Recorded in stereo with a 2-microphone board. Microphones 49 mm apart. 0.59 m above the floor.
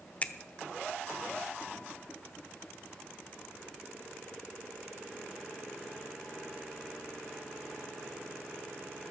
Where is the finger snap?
30° left (ahead or behind), 0.7 m.